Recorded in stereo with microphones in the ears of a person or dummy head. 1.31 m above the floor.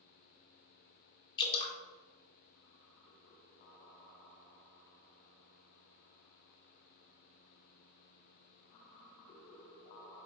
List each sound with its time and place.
1.4 s dripping: 30° left (ahead or behind), 0.9 m